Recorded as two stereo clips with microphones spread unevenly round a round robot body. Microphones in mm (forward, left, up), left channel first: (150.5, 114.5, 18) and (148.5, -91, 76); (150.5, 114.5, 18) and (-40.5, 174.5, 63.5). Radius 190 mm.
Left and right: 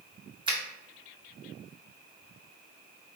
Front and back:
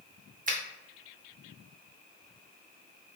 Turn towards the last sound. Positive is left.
turn(degrees=-170)